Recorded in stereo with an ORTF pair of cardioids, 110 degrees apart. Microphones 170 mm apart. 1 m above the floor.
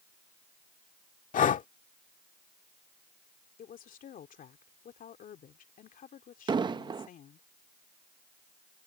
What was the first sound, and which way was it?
Breathing, 50° left.